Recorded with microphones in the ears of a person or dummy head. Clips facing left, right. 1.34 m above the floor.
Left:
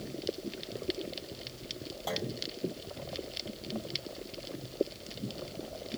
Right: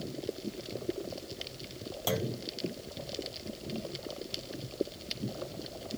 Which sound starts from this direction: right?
A clunk, at 2.1 s.